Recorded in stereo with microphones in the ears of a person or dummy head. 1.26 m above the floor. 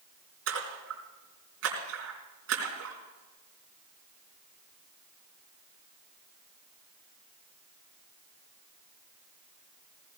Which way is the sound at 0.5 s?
80° right.